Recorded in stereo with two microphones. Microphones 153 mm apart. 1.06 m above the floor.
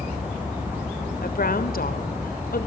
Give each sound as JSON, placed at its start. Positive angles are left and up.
{"t": 1.2, "sound": "a woman speaking", "side_deg": 80, "distance_m": 3.0}